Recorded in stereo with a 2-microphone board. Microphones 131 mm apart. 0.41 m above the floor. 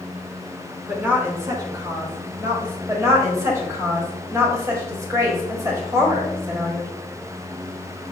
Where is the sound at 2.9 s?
25° right (ahead or behind), 1.4 m.